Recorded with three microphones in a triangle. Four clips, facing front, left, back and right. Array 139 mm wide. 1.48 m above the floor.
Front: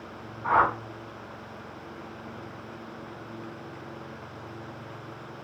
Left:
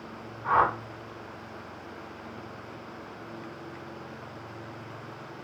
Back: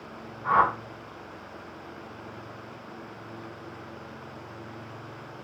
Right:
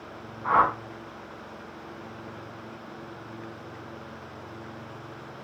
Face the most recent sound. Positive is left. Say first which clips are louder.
# right 2 dB, even
turn(degrees=-20)